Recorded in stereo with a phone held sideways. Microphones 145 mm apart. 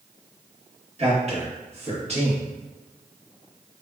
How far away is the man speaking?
About 1.2 m.